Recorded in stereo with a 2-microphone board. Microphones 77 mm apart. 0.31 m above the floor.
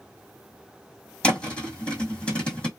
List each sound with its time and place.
1.2 s a thud: 15° left (ahead or behind), 1.5 m